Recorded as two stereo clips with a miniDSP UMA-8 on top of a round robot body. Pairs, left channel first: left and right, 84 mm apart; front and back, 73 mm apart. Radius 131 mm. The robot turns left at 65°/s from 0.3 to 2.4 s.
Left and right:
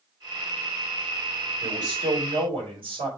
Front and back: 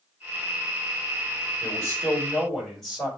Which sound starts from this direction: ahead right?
A man speaking, at 1.6 s.